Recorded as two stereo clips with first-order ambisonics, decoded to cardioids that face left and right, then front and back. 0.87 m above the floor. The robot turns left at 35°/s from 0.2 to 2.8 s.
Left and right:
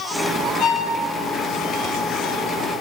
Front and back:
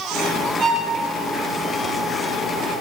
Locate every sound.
0.6 s a violin: 130° left, 4.5 m; by 0.9 s 120° left, 4.5 m